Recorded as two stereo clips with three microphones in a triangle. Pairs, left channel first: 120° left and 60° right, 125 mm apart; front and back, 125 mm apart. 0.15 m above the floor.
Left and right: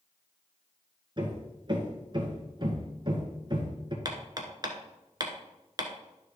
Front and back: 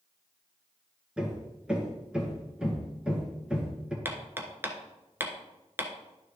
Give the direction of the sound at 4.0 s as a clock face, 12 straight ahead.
4 o'clock.